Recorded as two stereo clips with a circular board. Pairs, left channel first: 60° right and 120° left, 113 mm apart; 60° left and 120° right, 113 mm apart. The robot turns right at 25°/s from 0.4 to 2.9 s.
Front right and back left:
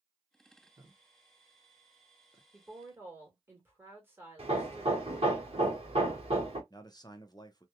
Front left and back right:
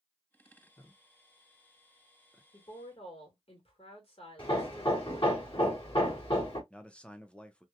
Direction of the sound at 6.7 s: 20° right.